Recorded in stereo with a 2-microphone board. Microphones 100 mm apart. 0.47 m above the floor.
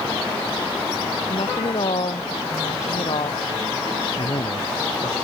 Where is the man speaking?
55° left (ahead or behind).